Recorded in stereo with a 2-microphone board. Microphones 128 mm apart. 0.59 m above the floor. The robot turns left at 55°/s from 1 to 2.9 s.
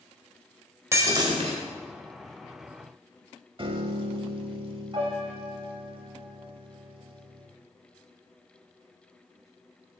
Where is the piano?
40° right (ahead or behind), 0.7 m.